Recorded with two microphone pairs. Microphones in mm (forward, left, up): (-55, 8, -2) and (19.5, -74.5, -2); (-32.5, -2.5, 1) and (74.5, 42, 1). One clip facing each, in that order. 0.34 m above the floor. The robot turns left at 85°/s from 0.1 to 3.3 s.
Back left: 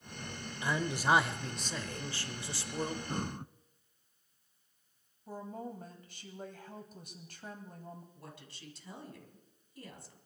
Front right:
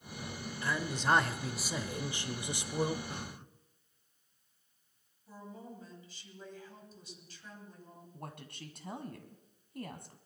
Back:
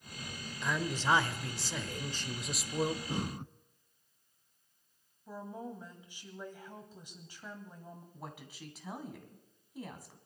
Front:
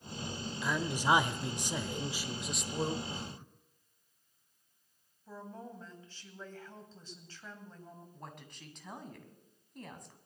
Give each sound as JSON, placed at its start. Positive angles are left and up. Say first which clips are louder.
{"t": 0.6, "sound": "a man speaking", "louder": "back left 1 dB, front 1 dB", "azimuth_deg": 100, "distance_m": 0.8}
{"t": 3.1, "sound": "breathing", "louder": "back left 6 dB, back 6 dB", "azimuth_deg": -170, "distance_m": 0.5}
{"t": 5.3, "sound": "a woman speaking", "louder": "back left 6 dB, back 3 dB", "azimuth_deg": 130, "distance_m": 2.5}
{"t": 8.1, "sound": "a woman speaking", "louder": "front right 5 dB, back 2 dB", "azimuth_deg": -70, "distance_m": 2.5}